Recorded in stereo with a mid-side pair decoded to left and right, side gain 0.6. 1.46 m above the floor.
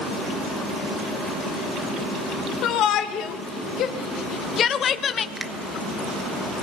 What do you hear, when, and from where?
2.6 s a shout: 60° left, 3 m; by 5.3 s 35° left, 1.6 m
5.4 s a finger snap: 10° right, 1.6 m